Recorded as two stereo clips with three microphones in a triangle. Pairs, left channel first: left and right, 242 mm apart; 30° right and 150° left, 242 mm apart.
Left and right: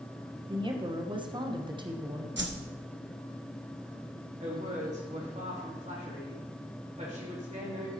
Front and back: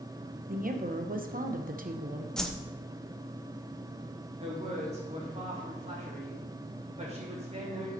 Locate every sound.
0.5 s a woman speaking: 160° right, 1.0 m
2.4 s a whoosh: 115° right, 0.8 m
4.4 s a woman speaking: 150° right, 3 m